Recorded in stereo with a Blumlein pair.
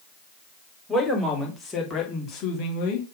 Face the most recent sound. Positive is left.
turn(degrees=50)